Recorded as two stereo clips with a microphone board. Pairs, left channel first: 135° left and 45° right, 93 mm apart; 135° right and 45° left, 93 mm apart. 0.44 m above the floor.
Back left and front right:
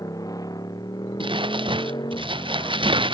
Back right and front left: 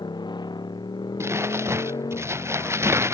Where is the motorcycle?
175° right; by 3.1 s 175° left.